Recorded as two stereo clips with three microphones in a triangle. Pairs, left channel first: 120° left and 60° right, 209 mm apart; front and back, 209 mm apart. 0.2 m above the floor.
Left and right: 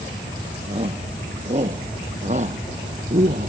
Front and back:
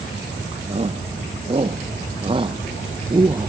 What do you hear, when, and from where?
0.7 s a shout: 120° right; by 3.5 s 110° right